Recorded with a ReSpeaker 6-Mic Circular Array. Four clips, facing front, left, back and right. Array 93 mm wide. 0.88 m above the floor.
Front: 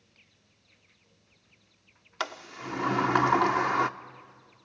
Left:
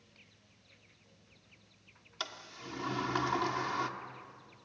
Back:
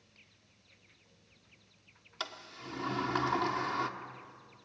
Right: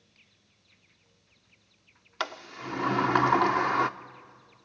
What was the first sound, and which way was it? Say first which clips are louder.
A sliding door: right 10 dB, front 8 dB; 50° right.